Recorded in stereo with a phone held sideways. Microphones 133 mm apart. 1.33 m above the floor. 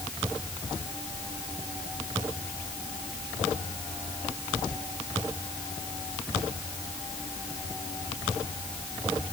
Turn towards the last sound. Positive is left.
No sound to turn to.